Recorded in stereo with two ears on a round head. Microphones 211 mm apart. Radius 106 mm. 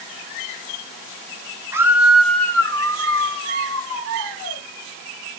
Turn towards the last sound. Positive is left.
turn(degrees=35)  # may be behind; listen again after turning